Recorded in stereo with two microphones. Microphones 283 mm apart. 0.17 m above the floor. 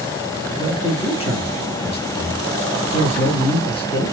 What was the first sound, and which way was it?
A man speaking, 20° left (ahead or behind).